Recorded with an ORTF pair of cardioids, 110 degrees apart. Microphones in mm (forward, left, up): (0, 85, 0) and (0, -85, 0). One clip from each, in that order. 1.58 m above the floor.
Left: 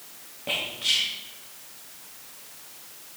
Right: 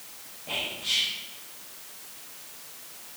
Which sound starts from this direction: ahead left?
Whispering, at 0.5 s.